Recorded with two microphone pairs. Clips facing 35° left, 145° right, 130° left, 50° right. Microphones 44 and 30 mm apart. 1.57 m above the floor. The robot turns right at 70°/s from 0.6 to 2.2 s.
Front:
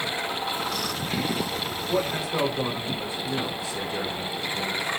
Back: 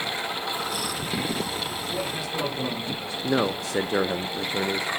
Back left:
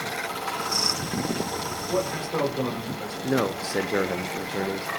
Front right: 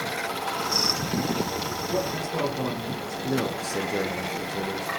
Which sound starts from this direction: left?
A man speaking, at 1.9 s.